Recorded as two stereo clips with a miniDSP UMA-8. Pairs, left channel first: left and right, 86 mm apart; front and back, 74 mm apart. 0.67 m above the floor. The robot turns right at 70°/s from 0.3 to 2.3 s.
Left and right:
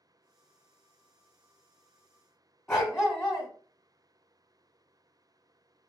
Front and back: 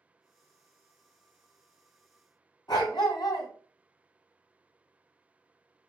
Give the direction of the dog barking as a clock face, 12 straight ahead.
12 o'clock.